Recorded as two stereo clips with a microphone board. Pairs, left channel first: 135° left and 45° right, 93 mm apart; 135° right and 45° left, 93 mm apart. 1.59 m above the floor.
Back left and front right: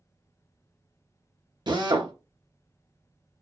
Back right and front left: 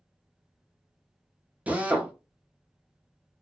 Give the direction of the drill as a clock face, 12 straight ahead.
1 o'clock.